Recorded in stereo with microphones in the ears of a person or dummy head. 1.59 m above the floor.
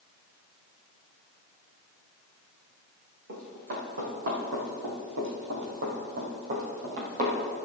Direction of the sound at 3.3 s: 55° right (ahead or behind).